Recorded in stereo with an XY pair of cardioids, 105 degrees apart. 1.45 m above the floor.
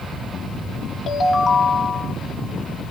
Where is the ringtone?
45° left, 1.6 m.